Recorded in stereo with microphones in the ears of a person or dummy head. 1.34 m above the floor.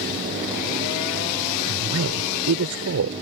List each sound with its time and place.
1.7 s a woman speaking: 65° right (ahead or behind)